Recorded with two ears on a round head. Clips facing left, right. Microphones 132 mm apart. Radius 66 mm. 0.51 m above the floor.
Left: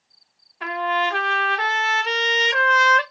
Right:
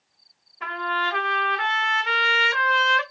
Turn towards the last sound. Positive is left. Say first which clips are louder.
# left 5 dB
turn(degrees=45)  # may be behind; listen again after turning